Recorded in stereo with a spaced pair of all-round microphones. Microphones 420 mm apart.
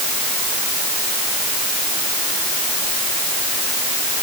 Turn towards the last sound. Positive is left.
No sound to turn to.